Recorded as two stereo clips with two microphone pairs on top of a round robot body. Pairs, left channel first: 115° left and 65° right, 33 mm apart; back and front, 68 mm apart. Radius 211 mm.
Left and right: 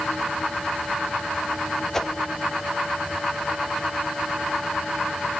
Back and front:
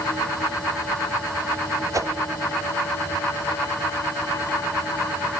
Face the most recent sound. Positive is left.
turn(degrees=40)